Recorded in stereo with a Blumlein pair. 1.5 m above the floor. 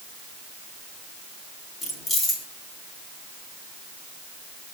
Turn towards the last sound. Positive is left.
turn(degrees=20)